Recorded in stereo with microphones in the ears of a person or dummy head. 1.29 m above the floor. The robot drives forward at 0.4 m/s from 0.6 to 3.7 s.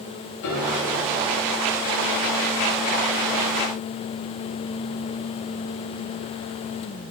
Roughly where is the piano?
Left.